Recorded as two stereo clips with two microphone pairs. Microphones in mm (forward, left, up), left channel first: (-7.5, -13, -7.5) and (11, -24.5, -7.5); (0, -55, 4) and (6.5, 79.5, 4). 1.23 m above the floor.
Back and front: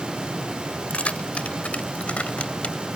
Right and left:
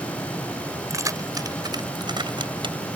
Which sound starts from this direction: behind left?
Keys jangling, at 0.9 s.